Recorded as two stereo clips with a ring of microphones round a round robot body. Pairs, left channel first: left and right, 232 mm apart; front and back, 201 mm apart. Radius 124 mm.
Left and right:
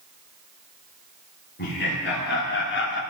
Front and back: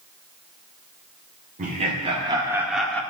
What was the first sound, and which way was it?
Laughter, 130° left.